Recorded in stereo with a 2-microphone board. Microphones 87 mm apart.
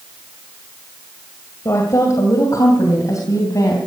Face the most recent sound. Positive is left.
turn(degrees=45)  # may be behind; listen again after turning